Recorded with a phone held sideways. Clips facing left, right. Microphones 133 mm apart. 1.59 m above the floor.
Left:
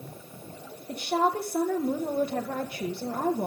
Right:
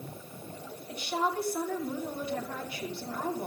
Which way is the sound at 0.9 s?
45° left (ahead or behind).